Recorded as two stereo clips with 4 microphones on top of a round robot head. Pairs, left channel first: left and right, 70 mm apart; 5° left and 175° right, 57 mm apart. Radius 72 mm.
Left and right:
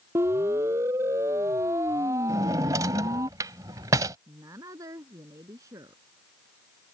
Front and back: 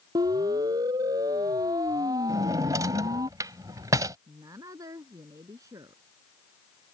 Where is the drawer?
140° right.